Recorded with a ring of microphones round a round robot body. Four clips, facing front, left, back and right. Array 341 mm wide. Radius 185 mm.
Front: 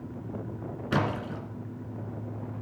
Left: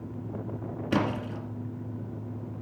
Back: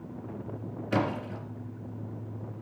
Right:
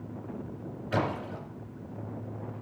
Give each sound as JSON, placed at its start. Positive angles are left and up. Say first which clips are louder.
{"t": 0.9, "sound": "a splash", "louder": "left 2 dB, even", "azimuth_deg": 60, "distance_m": 2.0}